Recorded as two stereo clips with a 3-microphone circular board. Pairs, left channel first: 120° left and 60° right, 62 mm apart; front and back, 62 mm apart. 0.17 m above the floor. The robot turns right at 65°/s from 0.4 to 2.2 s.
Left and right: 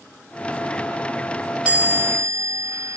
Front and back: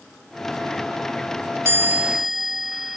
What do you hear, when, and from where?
1.6 s a chime: 130° right, 9 m; by 3.0 s 95° right, 9 m